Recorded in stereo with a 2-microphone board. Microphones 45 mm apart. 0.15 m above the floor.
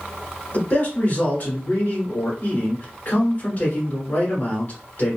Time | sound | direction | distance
0.5 | a man speaking | 40° left (ahead or behind) | 1.7 m